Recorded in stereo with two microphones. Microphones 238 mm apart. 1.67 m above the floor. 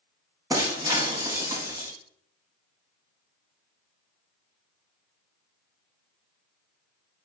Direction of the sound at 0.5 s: 15° right (ahead or behind).